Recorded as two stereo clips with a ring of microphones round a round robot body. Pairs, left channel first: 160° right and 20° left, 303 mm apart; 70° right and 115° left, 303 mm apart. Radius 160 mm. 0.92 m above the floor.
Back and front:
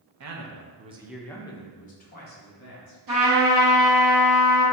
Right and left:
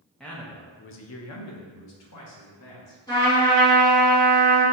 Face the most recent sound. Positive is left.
turn(degrees=10)